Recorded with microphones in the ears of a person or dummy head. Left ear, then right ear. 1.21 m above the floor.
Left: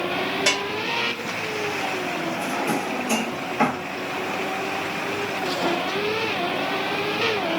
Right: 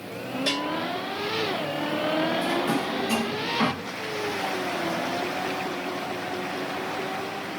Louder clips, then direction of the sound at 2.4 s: Left 1 dB; 25° left (ahead or behind).